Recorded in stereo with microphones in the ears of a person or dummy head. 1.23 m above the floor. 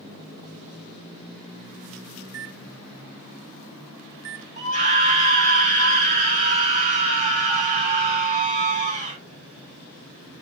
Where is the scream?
30° right (ahead or behind), 5 m.